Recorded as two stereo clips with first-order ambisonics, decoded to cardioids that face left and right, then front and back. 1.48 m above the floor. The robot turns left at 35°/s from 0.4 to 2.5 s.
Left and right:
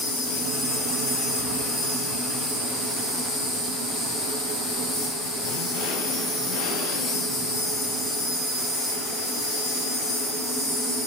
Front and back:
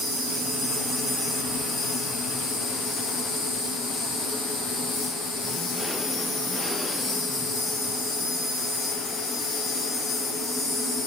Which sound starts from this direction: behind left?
An insect, at 0.0 s.